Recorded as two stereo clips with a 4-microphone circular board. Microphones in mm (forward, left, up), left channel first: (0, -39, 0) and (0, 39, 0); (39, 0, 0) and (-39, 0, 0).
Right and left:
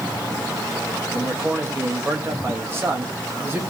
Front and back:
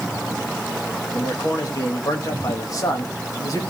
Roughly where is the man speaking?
Ahead left.